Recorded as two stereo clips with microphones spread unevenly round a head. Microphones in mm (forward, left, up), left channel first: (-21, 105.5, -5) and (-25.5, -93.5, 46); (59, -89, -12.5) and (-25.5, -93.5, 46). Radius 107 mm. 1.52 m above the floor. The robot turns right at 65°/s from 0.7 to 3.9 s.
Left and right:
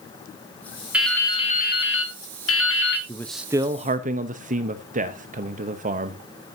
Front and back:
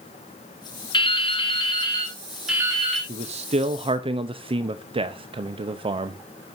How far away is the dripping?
About 1.8 m.